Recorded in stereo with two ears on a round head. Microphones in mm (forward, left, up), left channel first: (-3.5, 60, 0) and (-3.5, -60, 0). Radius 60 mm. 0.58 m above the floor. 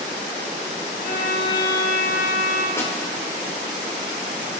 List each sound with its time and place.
1.0 s a violin: 85° left, 4.5 m
2.8 s a snare drum: 20° left (ahead or behind), 1.7 m